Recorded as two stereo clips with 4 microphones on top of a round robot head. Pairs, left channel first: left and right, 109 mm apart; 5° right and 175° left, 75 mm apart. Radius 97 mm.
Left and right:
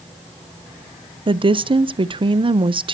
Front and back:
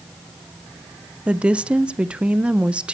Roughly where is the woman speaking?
Right.